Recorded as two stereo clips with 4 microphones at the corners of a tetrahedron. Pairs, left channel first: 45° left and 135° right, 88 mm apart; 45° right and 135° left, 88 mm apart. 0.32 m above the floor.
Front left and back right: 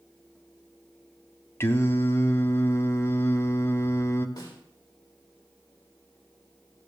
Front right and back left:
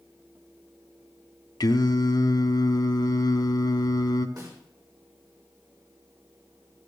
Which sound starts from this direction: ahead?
Singing, at 1.6 s.